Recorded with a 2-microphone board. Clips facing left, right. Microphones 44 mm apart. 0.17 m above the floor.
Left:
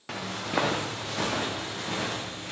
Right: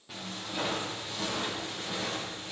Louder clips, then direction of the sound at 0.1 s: Left 8 dB; 80° left.